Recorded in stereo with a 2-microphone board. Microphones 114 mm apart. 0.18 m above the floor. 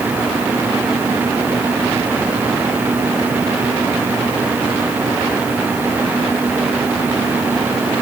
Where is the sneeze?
No sneeze in this recording.